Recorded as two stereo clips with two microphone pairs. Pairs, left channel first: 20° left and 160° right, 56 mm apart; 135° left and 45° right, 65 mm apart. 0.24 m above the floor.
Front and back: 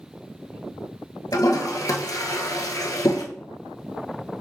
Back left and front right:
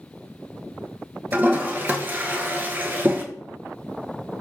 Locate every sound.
1.3 s a toilet flushing: 15° left, 0.7 m